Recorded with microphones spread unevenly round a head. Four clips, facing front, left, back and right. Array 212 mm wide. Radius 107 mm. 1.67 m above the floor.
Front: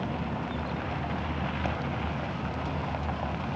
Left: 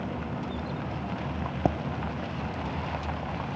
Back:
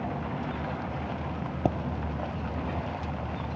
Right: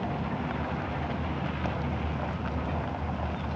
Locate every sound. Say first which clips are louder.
1.6 s a pop: left 10 dB, back 8 dB; 135° left